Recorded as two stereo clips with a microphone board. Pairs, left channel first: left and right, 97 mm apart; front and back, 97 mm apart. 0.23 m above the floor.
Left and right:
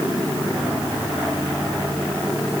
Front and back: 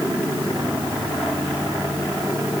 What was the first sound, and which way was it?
Only background noise.